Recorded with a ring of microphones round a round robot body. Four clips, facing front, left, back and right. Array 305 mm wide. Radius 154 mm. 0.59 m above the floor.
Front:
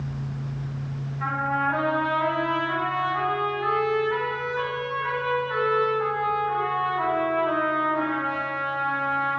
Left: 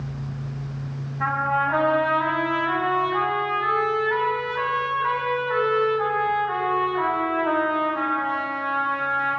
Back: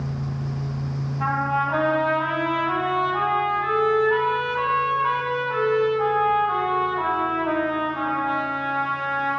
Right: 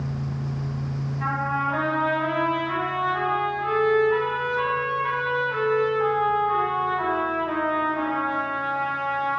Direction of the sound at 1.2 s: 135° left.